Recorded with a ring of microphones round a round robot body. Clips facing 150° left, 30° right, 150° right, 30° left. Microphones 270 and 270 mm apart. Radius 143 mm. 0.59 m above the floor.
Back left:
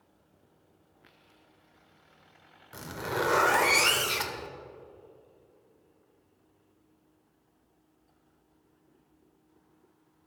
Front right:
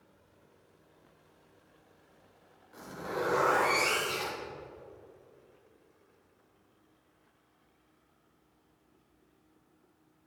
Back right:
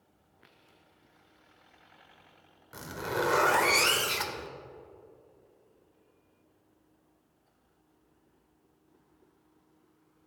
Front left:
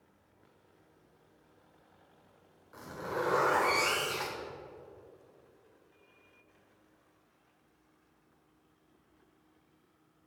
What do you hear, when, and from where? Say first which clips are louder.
2.7 s a zipper: back left 3 dB, back right 3 dB; 170° left, 1.0 m